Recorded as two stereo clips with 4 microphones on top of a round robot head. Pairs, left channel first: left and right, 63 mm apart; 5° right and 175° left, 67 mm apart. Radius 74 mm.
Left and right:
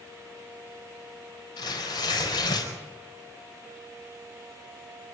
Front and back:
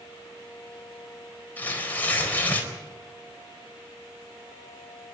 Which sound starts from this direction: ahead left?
Tearing paper, at 1.6 s.